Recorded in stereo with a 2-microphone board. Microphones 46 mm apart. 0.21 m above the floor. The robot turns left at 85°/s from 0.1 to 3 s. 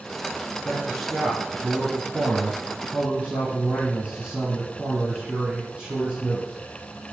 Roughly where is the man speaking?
Ahead left.